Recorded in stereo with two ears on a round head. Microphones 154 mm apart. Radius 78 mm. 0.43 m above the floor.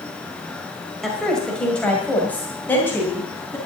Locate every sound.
1.0 s a woman speaking: centre (ahead or behind), 2 m; by 3.6 s 15° left (ahead or behind), 3.5 m